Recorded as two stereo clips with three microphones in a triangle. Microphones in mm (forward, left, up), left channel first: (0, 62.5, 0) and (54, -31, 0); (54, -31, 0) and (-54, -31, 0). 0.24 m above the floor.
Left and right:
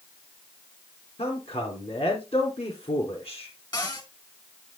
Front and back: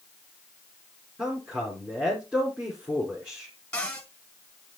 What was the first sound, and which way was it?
A man speaking, 105° left.